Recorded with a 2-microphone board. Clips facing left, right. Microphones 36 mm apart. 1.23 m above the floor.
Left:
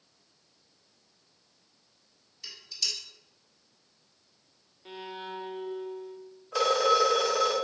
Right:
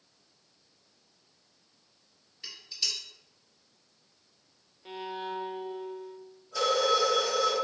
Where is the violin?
5° right (ahead or behind), 0.5 m.